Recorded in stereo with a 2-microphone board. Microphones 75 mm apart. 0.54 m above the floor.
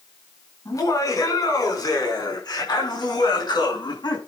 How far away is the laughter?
About 6 m.